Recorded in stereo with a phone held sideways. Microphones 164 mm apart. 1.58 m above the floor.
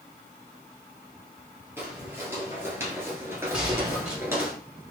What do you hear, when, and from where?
1.8 s footsteps: 15° right (ahead or behind), 2 m
3.5 s a gunshot: 5° right (ahead or behind), 2.5 m